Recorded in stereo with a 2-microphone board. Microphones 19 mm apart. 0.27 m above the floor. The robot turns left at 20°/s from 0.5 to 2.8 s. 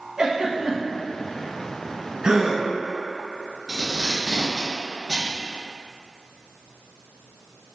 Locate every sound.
0.2 s a giggle: 45° right (ahead or behind), 0.7 m; by 1.0 s 35° right (ahead or behind), 0.7 m
2.2 s a gasp: 35° right (ahead or behind), 0.6 m; by 2.6 s 30° right (ahead or behind), 0.6 m
3.7 s tape being pulled: 15° right (ahead or behind), 1.6 m